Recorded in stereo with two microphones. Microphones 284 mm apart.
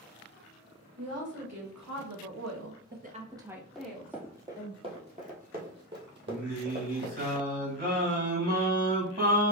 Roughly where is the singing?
Right.